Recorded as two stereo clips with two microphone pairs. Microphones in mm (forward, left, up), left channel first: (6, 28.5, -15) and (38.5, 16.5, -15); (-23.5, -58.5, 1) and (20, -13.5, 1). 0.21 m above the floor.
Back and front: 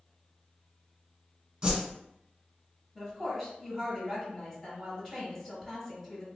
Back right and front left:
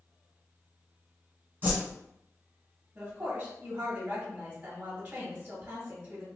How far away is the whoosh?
About 1.4 m.